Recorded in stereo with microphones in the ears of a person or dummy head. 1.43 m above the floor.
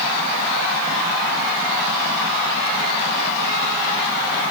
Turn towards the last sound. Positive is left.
No sound to turn to.